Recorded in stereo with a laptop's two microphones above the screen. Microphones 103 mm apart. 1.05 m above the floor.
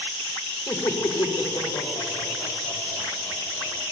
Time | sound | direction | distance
0.7 | laughter | 45° left (ahead or behind) | 2.5 m